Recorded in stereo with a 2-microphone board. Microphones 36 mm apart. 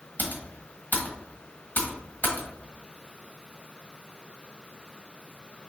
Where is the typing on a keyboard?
55° left (ahead or behind), 1.3 m.